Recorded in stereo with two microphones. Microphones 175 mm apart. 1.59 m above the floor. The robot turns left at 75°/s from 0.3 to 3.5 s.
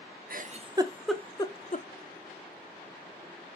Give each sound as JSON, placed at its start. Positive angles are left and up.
{"t": 0.3, "sound": "a giggle", "side_deg": -55, "distance_m": 0.5}